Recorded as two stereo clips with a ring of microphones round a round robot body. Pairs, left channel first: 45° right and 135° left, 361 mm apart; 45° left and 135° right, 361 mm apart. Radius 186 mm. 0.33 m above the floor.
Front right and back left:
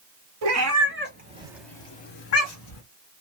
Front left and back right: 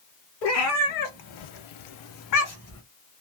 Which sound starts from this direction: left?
A cat meowing, at 0.4 s.